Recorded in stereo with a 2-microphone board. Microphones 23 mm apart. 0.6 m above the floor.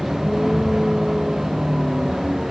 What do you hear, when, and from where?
0.0 s a vehicle: 15° right (ahead or behind); by 2.5 s 20° right (ahead or behind)